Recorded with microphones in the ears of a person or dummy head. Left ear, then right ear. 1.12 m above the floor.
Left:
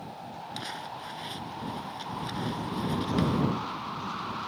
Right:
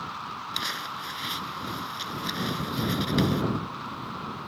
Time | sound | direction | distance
0.5 | crumpling | 20° right (ahead or behind) | ?